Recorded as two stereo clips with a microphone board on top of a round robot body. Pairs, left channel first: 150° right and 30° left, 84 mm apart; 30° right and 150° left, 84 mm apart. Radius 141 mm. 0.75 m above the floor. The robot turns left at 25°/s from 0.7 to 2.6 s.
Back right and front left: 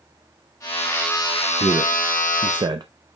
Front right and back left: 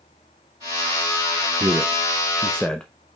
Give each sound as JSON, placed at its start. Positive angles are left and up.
{"t": 1.6, "sound": "a man speaking", "azimuth_deg": 75, "distance_m": 0.7}